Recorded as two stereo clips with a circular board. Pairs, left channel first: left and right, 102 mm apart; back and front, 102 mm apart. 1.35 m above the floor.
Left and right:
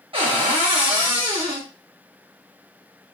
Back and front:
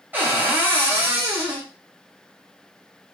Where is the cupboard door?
70° right, 0.9 m.